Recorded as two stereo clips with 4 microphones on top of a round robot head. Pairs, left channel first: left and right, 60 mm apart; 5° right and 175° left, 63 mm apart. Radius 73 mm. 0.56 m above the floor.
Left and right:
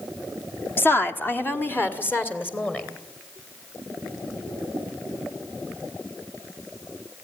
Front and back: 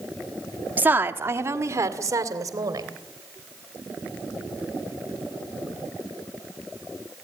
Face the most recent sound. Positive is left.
turn(degrees=150)